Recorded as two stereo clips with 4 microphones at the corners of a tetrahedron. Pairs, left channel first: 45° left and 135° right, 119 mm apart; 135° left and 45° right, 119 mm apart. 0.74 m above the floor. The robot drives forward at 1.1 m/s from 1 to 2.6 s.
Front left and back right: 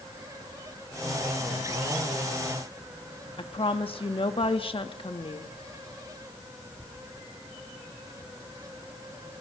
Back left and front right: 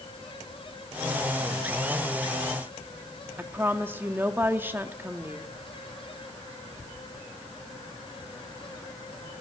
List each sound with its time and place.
3.4 s a woman speaking: 25° left, 1.3 m